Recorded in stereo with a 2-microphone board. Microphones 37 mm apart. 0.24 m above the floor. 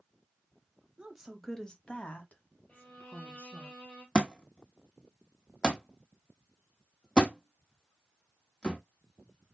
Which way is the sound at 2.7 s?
30° left (ahead or behind).